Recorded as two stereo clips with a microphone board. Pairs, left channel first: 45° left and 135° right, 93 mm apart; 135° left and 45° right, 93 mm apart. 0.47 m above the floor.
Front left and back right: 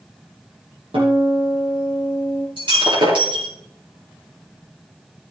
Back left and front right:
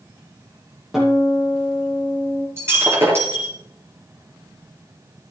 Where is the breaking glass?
105° right, 5 m.